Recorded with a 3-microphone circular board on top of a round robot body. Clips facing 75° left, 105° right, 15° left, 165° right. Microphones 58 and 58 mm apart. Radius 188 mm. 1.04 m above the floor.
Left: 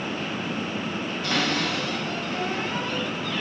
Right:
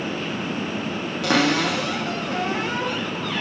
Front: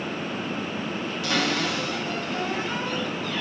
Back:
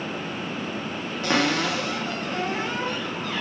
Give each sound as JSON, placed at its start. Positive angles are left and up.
{"t": 1.2, "sound": "a cupboard door", "azimuth_deg": -110, "distance_m": 1.4}